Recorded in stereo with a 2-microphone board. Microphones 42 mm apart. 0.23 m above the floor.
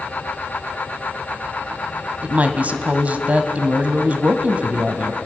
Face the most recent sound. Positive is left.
turn(degrees=-35)  # may be behind; listen again after turning